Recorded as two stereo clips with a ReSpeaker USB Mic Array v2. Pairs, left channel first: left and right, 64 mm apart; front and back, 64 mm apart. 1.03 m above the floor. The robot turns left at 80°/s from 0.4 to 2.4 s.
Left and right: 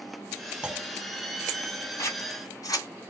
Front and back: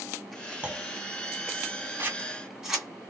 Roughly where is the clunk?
Behind right.